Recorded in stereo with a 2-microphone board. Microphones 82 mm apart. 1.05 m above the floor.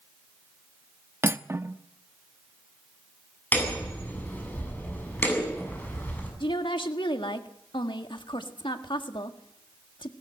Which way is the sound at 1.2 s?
30° right (ahead or behind).